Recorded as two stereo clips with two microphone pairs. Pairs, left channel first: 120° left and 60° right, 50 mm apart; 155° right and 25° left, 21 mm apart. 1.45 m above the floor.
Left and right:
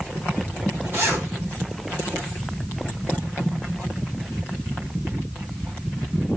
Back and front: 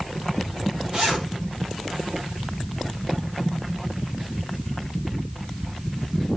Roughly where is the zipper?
Ahead.